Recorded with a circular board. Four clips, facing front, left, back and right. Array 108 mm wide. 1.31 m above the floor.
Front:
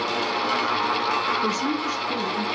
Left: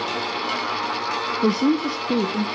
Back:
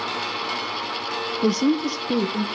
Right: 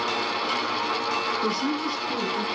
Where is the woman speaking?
130° left, 0.7 m.